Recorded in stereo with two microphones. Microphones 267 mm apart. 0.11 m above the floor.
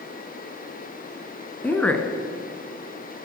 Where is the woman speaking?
5° left (ahead or behind), 1.1 m.